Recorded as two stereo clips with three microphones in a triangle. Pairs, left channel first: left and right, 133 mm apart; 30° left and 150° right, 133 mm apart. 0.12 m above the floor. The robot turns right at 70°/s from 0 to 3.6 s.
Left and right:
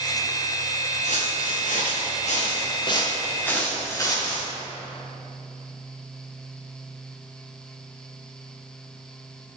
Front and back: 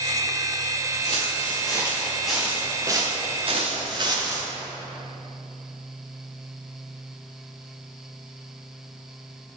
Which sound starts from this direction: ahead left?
Footsteps, at 1.0 s.